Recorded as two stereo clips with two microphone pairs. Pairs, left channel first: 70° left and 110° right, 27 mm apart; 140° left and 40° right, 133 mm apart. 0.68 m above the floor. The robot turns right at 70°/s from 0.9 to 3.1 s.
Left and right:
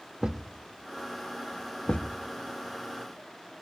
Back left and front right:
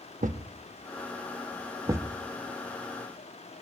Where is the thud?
45° right, 0.7 m; by 2.2 s 40° left, 0.7 m.